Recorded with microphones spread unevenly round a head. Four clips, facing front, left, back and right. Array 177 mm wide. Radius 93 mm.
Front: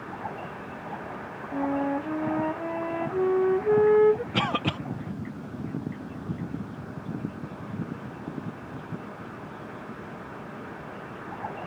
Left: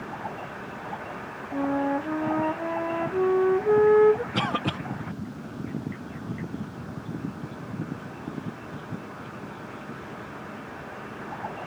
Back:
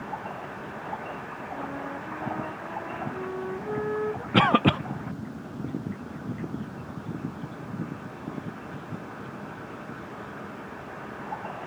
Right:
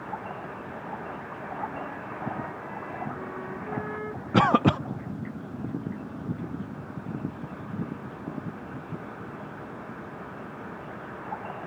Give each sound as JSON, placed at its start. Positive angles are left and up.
{"t": 1.5, "sound": "a flute", "azimuth_deg": 50}
{"t": 4.3, "sound": "a cough", "azimuth_deg": -140}